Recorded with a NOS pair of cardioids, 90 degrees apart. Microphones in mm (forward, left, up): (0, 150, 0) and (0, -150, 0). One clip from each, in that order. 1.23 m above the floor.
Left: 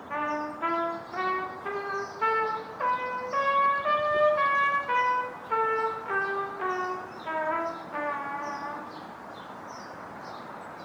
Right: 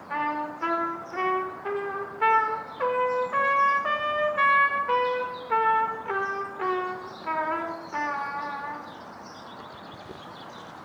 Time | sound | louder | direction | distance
0.1 | a trumpet | right 2 dB | 10° right | 0.8 m